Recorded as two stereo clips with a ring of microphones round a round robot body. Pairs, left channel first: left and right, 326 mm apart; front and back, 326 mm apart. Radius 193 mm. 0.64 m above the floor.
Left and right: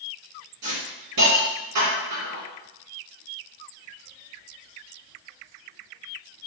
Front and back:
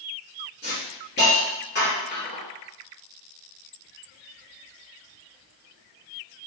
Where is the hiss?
65° right, 1.4 m.